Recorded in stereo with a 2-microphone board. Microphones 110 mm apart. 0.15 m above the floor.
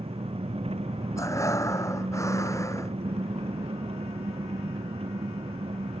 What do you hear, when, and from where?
0.0 s an engine running: 65° right (ahead or behind)
1.2 s breathing: 30° left (ahead or behind)